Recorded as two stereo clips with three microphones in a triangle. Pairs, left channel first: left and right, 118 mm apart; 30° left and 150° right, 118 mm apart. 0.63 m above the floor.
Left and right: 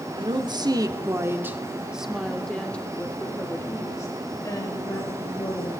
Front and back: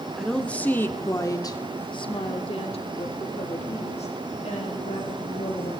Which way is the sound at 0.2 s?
55° right.